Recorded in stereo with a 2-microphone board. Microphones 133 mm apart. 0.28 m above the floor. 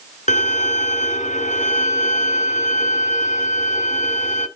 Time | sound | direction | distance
0.3 | a violin | 65° left (ahead or behind) | 2.0 m